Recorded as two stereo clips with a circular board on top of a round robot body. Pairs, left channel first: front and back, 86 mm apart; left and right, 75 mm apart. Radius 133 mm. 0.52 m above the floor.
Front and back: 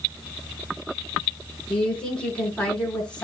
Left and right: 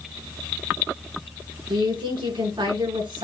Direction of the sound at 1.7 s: 80° right.